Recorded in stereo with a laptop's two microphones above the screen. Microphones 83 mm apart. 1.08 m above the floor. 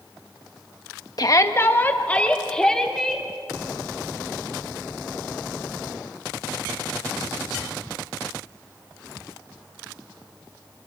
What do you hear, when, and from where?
1.2 s a shout: 50° left (ahead or behind), 0.9 m; by 3.3 s 5° left (ahead or behind), 3 m